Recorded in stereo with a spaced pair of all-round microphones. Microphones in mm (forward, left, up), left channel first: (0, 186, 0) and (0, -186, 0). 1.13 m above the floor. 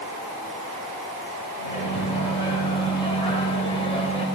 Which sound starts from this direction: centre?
A microwave, at 1.6 s.